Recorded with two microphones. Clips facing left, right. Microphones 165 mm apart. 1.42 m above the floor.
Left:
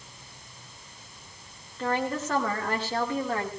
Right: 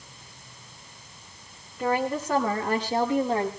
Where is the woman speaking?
10° right (ahead or behind), 5 m; by 3.5 s 20° right (ahead or behind), 5 m.